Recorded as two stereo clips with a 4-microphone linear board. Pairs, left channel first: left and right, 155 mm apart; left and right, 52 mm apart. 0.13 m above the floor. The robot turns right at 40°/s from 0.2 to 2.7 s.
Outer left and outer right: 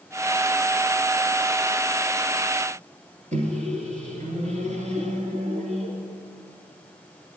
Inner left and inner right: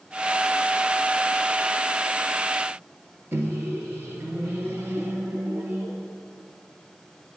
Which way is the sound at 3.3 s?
50° right (ahead or behind).